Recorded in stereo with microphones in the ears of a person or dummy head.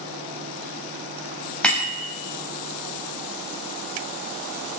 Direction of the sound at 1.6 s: 5° left (ahead or behind).